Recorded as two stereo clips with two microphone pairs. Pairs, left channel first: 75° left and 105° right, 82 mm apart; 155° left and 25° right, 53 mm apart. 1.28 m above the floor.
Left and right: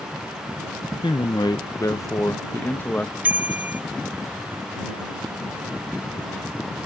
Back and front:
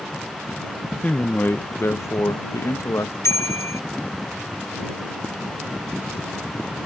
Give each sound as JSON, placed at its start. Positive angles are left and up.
{"t": 1.0, "sound": "a man speaking", "azimuth_deg": 95}
{"t": 3.2, "sound": "a bicycle bell", "azimuth_deg": -175}